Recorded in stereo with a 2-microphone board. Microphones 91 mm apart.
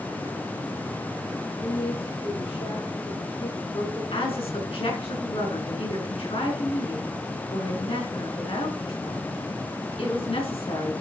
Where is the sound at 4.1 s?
70° left (ahead or behind), 4.5 m.